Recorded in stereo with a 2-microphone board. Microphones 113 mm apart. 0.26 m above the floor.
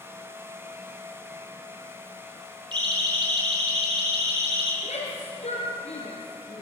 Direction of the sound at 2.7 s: 45° right (ahead or behind).